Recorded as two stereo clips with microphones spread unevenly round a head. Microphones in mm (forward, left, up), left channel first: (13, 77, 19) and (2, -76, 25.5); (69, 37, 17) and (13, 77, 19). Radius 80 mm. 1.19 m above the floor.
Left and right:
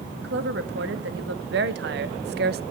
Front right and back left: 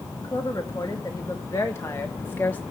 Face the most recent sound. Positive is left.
turn(degrees=-110)